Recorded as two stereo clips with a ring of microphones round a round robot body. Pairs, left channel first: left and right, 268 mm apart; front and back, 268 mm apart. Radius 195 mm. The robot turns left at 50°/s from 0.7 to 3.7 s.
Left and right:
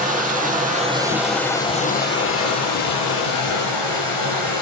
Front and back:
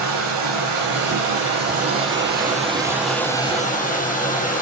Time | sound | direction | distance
0.0 | running water | 150° right | 8.5 m